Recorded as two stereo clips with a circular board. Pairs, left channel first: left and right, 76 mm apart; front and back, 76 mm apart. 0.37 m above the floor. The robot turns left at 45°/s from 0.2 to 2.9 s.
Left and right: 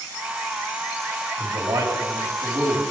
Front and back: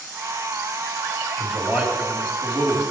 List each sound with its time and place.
1.4 s a man speaking: 95° right, 2.5 m; by 2.8 s 160° right, 2.5 m